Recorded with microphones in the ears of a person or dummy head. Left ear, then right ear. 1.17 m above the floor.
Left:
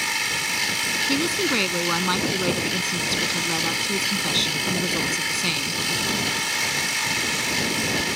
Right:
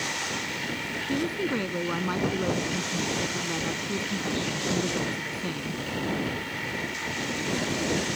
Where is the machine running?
80° left.